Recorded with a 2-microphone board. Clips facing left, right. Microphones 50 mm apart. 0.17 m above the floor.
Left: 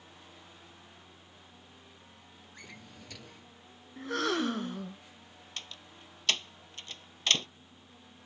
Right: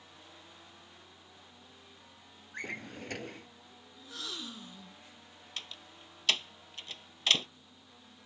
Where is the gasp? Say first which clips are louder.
Left 14 dB; 70° left (ahead or behind).